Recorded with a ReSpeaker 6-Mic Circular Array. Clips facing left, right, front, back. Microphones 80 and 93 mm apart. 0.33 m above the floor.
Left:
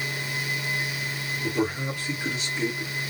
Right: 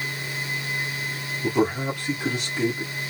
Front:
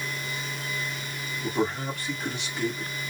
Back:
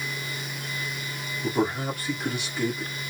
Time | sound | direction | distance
1.4 | a man speaking | 100° right | 2.5 m